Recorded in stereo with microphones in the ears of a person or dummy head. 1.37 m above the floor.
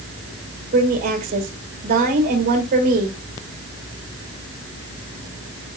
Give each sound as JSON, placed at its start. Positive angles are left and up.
{"t": 0.7, "sound": "a woman speaking", "side_deg": -50, "distance_m": 1.9}